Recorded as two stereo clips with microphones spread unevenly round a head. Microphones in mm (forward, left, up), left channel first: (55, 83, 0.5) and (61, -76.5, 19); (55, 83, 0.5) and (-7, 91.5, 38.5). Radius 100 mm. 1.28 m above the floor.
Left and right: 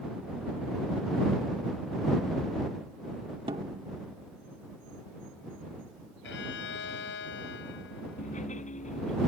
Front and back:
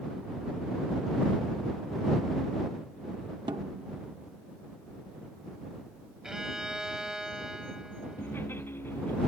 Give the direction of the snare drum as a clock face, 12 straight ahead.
5 o'clock.